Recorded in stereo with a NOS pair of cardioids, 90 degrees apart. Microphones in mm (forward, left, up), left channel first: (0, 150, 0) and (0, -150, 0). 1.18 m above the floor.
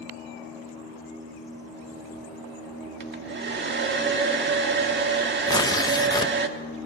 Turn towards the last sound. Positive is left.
turn(degrees=15)